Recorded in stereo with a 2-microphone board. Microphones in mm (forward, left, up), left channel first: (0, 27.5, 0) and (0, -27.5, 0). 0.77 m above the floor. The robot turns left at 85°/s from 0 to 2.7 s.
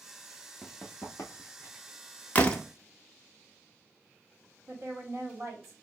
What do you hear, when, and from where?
0.6 s running footsteps: 15° left (ahead or behind), 0.9 m; by 1.8 s 30° left (ahead or behind), 1.6 m
2.4 s a door slam: 30° left (ahead or behind), 0.6 m; by 2.6 s 10° left (ahead or behind), 0.6 m
4.7 s a woman speaking: 45° right (ahead or behind), 1.3 m